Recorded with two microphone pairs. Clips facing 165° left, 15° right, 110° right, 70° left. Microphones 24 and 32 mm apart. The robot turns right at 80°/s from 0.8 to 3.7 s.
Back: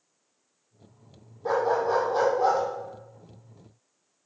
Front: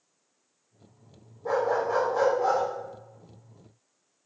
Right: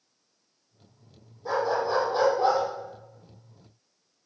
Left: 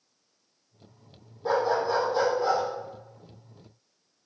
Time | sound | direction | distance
1.4 | a dog barking | 125° left | 3 m